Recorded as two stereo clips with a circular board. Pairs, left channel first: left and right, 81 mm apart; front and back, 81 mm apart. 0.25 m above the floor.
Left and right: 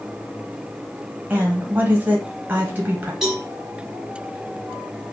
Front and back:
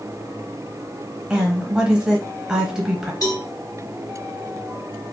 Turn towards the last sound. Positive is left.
turn(degrees=-10)